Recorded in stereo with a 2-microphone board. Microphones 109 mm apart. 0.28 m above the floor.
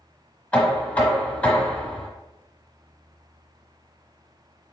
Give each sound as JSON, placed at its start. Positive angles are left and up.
{"t": 0.5, "sound": "knocking", "side_deg": 15, "distance_m": 1.2}